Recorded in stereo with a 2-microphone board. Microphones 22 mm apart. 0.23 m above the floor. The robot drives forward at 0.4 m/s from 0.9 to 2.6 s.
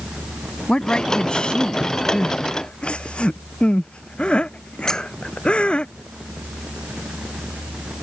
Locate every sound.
0.7 s a woman speaking: 45° left (ahead or behind)
2.1 s crying: 55° left (ahead or behind)
4.9 s a squeak: 30° left (ahead or behind)